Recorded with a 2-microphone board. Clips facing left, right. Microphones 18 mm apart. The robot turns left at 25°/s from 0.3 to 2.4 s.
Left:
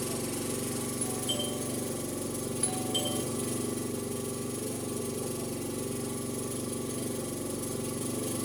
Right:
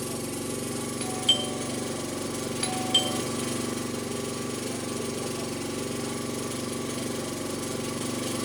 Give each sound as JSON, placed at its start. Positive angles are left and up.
{"t": 0.0, "sound": "an engine running", "azimuth_deg": -5, "distance_m": 0.7}
{"t": 1.0, "sound": "a doorbell", "side_deg": -70, "distance_m": 1.5}